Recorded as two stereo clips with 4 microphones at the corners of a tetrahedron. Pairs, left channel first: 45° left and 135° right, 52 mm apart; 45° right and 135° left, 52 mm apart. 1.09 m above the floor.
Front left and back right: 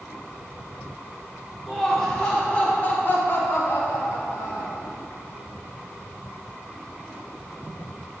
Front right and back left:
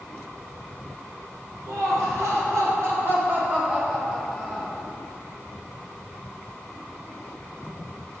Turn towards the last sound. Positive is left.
turn(degrees=45)